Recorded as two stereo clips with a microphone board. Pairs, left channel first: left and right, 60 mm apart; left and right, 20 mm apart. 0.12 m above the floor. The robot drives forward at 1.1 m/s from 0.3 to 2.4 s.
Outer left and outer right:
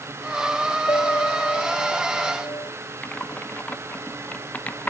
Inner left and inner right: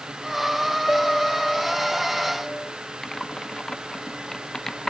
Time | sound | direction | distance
0.9 | a piano | 70° left (ahead or behind) | ?
3.0 | typing on a keyboard | 25° left (ahead or behind) | ?